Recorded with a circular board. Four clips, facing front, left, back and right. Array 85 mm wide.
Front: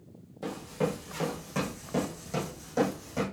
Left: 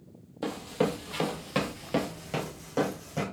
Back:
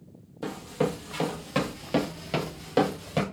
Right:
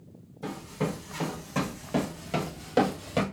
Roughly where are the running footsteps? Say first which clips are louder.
Left 4 dB, back 3 dB; left.